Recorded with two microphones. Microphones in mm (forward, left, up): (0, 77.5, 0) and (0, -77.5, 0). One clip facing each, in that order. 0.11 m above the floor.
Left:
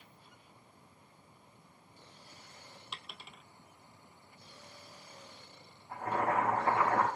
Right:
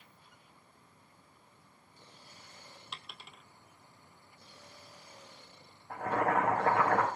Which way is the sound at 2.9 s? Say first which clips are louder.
Left 1 dB; 5° left (ahead or behind).